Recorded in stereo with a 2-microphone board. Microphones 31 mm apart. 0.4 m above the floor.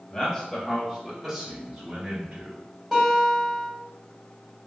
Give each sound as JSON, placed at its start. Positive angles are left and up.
{"t": 0.1, "sound": "a man speaking", "side_deg": 10, "distance_m": 1.5}
{"t": 2.9, "sound": "a guitar", "side_deg": -10, "distance_m": 1.8}